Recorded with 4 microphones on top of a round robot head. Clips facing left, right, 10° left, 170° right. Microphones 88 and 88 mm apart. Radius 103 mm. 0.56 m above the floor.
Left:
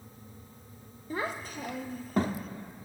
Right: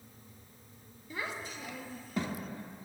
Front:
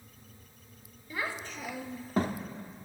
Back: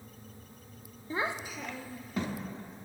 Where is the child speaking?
135° left, 0.8 m; by 2.4 s 40° left, 0.9 m.